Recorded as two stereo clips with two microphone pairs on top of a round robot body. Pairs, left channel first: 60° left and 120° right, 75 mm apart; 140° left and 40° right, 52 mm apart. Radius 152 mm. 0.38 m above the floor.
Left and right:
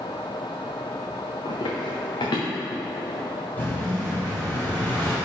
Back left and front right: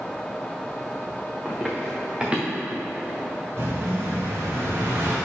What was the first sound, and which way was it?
Running footsteps, 40° left.